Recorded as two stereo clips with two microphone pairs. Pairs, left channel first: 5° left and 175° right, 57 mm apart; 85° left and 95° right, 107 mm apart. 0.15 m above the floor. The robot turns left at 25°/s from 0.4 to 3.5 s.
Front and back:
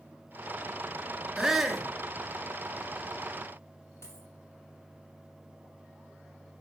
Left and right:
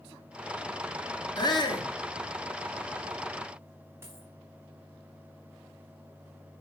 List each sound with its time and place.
1.4 s a shout: 105° left, 2 m; by 1.9 s 95° left, 2 m
4.0 s a dropped coin: 30° right, 4 m